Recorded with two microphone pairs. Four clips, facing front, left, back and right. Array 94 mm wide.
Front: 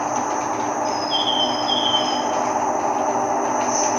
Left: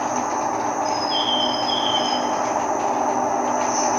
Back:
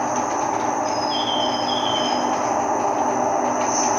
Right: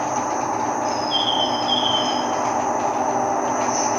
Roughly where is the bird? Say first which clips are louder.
Even, even; left.